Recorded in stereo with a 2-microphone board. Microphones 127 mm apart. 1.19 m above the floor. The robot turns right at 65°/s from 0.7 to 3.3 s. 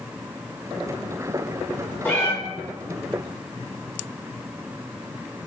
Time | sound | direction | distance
2.0 | a cat meowing | 15° left (ahead or behind) | 1.2 m